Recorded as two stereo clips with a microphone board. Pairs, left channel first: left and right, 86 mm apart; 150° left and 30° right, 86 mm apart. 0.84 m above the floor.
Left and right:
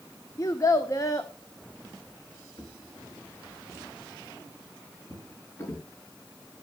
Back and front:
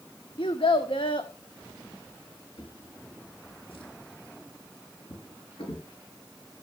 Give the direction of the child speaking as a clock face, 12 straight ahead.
7 o'clock.